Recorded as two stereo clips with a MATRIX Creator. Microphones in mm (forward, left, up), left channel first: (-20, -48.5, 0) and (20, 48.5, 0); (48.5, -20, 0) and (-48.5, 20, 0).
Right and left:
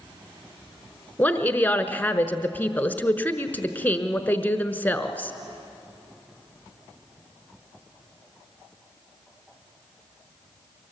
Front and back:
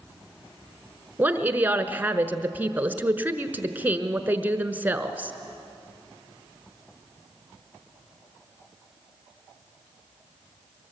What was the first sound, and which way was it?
A woman speaking, 160° right.